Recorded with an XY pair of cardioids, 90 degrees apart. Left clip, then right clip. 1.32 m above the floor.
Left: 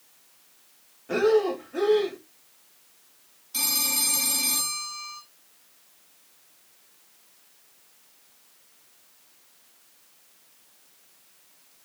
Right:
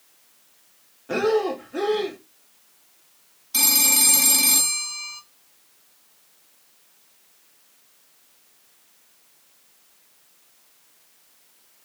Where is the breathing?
20° right, 3 m.